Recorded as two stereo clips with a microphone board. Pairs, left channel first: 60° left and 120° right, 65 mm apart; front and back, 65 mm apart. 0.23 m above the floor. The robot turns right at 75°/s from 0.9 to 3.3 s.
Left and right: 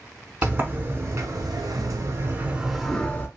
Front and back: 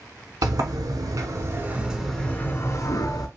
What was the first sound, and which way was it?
A sliding door, straight behind.